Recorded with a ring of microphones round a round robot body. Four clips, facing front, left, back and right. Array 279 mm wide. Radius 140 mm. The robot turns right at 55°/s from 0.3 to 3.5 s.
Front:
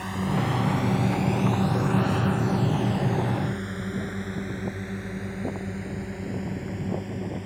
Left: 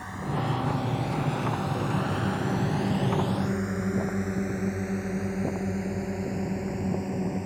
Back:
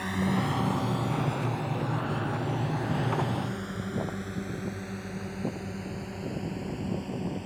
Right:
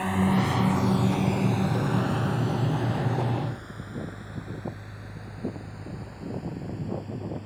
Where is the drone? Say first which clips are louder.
Right 7 dB, front 1 dB; 100° right; by 7.5 s 75° left.